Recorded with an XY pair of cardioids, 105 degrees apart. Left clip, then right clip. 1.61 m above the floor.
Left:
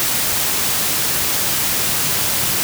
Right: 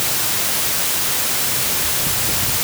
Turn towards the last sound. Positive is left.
No sound to turn to.